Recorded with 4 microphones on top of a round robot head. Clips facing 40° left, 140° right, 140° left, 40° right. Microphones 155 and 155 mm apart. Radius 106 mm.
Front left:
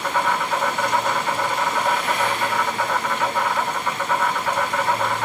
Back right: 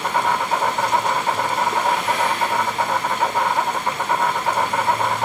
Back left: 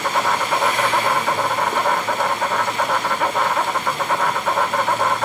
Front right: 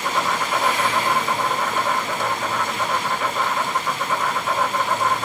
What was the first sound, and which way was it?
An insect, 160° left.